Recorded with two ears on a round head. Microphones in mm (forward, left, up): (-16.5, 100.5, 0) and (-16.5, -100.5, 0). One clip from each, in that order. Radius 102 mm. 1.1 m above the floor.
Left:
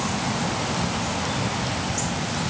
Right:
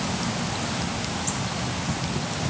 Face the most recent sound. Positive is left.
No sound to turn to.